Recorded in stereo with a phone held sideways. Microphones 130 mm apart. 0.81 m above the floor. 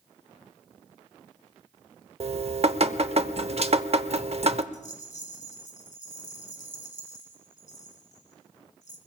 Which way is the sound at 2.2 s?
55° right (ahead or behind).